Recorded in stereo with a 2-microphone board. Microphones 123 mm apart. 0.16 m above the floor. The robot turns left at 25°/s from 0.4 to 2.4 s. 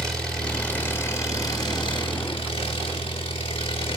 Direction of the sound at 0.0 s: 175° left.